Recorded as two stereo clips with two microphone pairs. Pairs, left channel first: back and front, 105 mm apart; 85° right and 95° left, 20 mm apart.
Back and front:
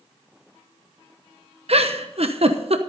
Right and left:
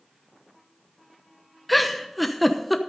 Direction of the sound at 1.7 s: Straight ahead.